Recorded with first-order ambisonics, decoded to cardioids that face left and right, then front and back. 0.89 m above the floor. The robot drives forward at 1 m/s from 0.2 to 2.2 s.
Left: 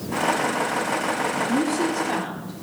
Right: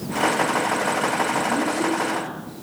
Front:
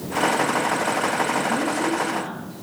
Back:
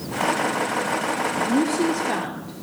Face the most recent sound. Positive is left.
turn(degrees=165)